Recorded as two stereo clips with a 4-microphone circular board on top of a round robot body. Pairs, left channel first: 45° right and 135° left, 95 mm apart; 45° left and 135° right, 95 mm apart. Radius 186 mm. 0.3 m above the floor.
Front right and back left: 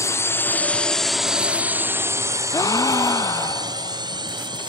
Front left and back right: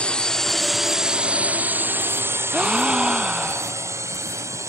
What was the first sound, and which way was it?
A drone, 25° right.